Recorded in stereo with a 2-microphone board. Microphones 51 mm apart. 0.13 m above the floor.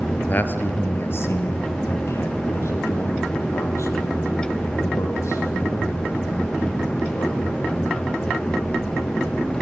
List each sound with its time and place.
0.3 s a man speaking: 35° left (ahead or behind), 2 m; by 8.7 s 65° left (ahead or behind), 6 m